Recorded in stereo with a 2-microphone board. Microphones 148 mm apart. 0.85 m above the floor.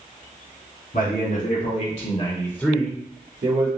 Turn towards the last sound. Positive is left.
turn(degrees=-50)  # may be behind; listen again after turning